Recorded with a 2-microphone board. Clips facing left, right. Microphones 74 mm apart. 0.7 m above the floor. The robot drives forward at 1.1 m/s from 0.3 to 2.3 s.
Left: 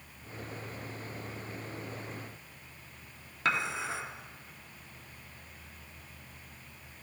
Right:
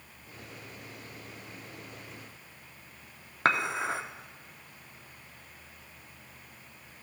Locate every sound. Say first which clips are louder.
3.5 s dishes clattering: right 4 dB; 50° right (ahead or behind), 0.9 m